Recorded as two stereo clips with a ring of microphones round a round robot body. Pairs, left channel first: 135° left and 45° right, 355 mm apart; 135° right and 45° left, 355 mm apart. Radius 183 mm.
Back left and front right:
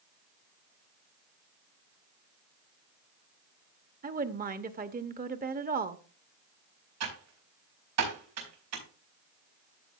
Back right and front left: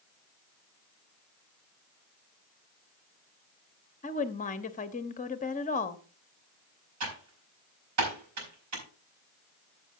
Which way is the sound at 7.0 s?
Straight ahead.